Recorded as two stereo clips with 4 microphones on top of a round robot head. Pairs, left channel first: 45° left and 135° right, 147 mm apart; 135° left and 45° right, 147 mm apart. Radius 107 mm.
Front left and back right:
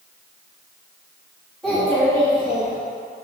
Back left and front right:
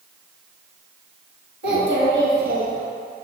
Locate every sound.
1.6 s a child speaking: 40° right, 2 m; by 2.8 s 5° left, 1.4 m